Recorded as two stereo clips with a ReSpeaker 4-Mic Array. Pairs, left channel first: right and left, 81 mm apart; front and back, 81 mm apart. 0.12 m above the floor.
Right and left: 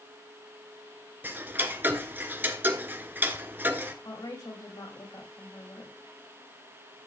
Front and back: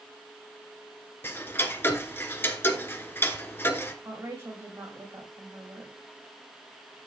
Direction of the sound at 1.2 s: 45° left.